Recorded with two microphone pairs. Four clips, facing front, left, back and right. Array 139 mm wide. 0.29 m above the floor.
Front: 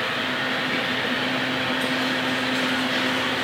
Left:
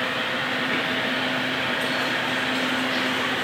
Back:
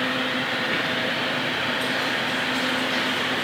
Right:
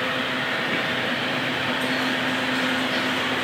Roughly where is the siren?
I don't hear a siren.